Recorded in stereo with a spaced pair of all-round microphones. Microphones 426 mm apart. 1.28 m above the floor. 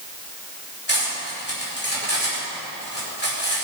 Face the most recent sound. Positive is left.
turn(degrees=25)  # may be behind; listen again after turning